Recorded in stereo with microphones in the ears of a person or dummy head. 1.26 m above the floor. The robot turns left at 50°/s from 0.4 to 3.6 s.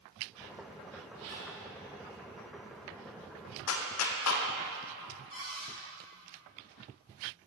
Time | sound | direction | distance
1.1 | a zipper | 70° right (ahead or behind) | 1.8 m
3.7 | a clap | 85° left | 0.6 m
5.3 | a cupboard door | 25° right (ahead or behind) | 1.9 m